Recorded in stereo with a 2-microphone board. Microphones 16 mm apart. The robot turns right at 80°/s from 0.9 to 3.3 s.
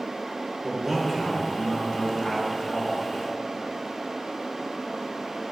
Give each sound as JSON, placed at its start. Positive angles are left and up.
{"t": 0.6, "sound": "a man speaking", "azimuth_deg": -25, "distance_m": 3.0}